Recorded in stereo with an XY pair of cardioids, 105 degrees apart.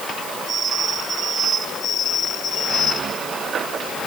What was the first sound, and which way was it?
Only background noise.